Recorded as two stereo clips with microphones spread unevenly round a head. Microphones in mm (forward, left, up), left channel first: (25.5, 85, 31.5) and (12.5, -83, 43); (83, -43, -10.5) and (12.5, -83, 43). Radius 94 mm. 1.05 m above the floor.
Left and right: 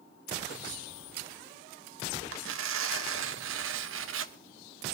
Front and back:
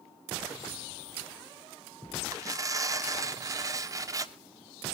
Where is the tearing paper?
115° right, 1.4 m.